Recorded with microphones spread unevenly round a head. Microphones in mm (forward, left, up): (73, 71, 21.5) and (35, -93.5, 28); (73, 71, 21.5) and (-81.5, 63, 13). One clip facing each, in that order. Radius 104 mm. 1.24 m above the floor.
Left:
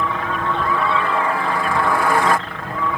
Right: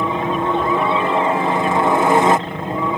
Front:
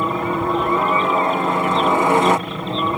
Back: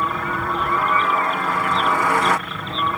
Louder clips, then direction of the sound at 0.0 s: Right 4 dB, front 5 dB; 50° right.